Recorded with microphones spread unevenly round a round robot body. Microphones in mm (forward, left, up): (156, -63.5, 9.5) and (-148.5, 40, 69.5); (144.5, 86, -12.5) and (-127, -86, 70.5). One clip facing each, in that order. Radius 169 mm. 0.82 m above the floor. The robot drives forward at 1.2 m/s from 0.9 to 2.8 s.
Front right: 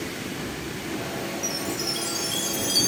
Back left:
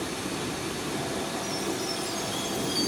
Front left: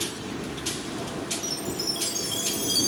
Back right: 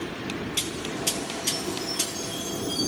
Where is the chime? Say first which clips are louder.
Even, back right 1 dB; 5° left, 2.5 m; by 2.9 s 15° left, 1.1 m.